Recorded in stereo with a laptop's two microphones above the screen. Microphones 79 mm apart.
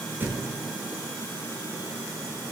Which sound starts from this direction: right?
A thud, at 0.2 s.